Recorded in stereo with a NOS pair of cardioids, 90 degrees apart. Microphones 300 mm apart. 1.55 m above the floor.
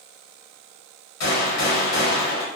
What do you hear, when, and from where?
1.2 s a gunshot: 60° left, 1.8 m